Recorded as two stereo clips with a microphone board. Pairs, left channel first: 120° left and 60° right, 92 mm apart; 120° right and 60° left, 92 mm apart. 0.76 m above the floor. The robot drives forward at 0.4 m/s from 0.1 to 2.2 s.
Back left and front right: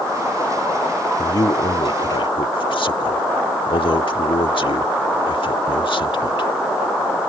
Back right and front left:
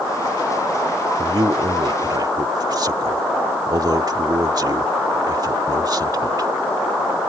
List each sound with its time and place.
1.2 s a man speaking: 85° left; by 6.5 s 100° left